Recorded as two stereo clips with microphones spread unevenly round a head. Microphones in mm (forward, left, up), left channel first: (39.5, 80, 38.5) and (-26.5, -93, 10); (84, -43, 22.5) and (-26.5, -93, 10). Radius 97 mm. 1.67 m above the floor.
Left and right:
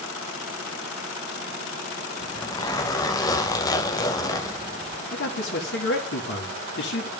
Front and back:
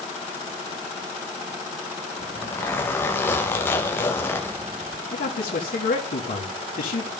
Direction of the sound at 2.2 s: 60° left.